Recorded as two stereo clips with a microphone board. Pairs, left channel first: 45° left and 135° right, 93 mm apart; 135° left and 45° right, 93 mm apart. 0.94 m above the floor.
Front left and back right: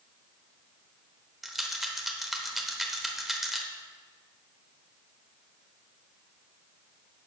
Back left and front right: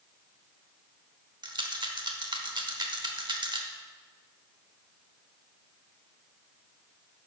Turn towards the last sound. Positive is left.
turn(degrees=-50)